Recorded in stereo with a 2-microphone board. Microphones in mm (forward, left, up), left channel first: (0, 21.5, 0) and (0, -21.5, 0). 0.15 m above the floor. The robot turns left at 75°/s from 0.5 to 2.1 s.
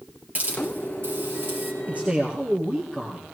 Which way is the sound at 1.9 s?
40° right (ahead or behind).